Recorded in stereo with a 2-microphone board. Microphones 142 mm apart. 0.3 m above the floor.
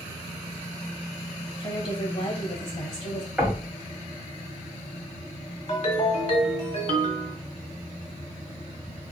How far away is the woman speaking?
About 1.4 m.